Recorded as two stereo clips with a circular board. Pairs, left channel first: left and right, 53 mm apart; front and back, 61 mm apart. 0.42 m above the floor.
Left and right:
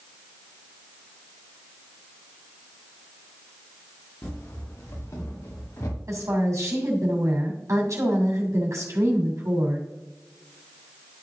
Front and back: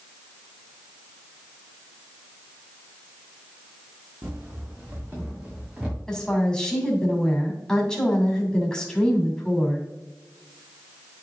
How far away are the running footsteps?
About 3 m.